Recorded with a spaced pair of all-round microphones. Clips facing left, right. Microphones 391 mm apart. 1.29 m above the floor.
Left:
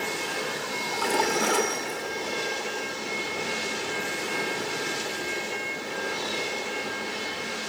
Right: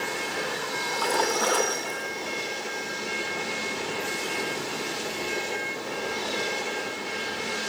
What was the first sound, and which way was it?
A splash, 40° left (ahead or behind).